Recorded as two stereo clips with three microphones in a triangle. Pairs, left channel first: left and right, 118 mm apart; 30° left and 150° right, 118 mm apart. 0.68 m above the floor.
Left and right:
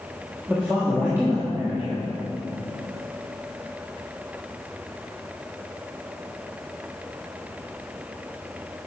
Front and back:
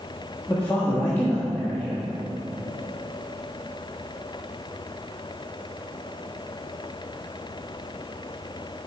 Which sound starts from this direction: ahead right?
A man speaking, at 0.5 s.